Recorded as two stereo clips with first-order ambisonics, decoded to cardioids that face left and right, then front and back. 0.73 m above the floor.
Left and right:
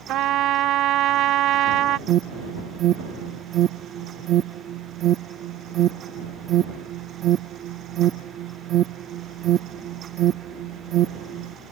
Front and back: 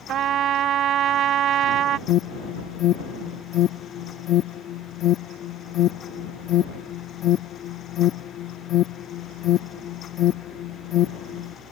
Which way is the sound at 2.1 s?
45° right.